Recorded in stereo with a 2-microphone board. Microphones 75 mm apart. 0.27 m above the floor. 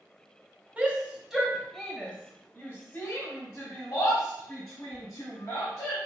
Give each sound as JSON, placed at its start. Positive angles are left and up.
{"t": 0.8, "sound": "a shout", "side_deg": -15, "distance_m": 1.0}